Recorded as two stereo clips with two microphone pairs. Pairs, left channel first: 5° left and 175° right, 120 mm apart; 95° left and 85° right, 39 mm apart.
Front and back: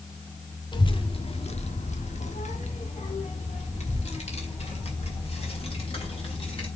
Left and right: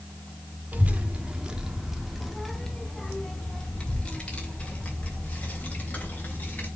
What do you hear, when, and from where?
0.7 s a child speaking: 40° right, 1.3 m; by 6.7 s 45° left, 3.5 m